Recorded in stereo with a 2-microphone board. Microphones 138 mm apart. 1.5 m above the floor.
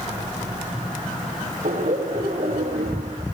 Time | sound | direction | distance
1.6 | laughter | 65° right (ahead or behind) | 5 m